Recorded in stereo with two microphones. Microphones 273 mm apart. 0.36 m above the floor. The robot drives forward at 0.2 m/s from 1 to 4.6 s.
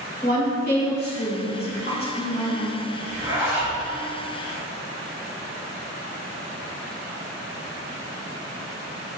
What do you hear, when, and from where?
0.2 s a woman speaking: 35° left (ahead or behind), 1.3 m
3.1 s a zipper: 40° right (ahead or behind), 1.4 m